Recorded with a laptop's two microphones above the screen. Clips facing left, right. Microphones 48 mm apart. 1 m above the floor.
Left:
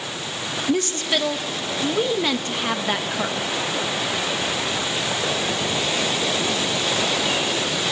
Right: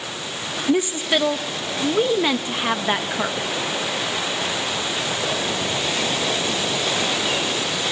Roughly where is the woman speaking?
Centre.